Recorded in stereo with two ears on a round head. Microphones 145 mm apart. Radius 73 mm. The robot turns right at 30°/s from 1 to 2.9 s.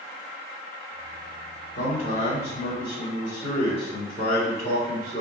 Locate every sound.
1.8 s a man speaking: 120° left, 1.5 m; by 5.2 s 155° left, 1.5 m